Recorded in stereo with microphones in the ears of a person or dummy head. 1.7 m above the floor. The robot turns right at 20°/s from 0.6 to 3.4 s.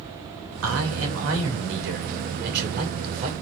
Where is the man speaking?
95° right, 4.5 m; by 3.3 s 40° right, 4.5 m.